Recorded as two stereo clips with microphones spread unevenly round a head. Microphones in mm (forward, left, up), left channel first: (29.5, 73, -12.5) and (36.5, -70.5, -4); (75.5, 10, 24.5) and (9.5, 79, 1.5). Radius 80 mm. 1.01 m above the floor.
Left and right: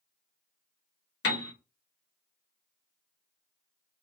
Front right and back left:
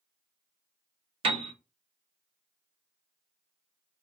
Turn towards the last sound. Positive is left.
turn(degrees=115)